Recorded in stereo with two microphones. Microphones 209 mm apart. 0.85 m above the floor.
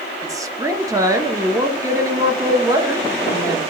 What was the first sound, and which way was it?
A woman speaking, 15° right (ahead or behind).